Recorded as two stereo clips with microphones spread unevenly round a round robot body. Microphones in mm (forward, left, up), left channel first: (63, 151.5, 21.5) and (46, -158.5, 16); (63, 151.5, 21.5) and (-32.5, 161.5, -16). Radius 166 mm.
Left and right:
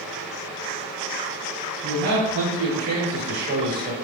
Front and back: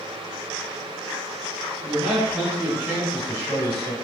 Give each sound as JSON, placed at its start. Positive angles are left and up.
{"t": 1.8, "sound": "a man speaking", "azimuth_deg": -135, "distance_m": 1.5}